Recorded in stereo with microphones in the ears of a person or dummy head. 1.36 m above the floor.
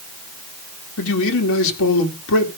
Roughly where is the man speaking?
Left.